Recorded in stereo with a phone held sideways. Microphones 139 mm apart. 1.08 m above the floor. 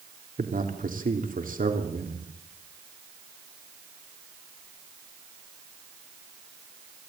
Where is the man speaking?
80° right, 3 m.